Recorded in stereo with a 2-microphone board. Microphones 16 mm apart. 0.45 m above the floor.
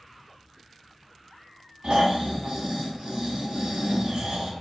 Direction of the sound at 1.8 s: 80° right.